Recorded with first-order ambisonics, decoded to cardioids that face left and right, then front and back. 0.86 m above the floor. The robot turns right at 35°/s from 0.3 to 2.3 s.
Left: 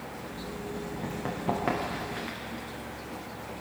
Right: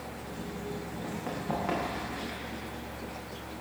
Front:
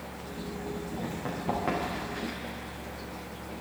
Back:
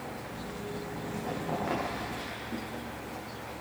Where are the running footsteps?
55° left, 7 m; by 2.4 s 90° left, 5.5 m.